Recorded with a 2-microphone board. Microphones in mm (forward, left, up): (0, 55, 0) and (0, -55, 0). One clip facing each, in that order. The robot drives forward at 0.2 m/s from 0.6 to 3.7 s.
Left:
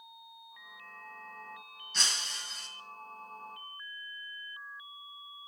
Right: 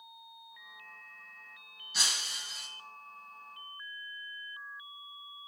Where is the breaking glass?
10° right (ahead or behind), 3.5 m.